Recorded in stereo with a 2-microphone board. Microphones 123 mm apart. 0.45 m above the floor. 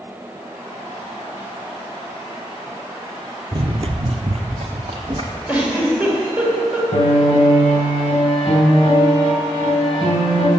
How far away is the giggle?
About 2 m.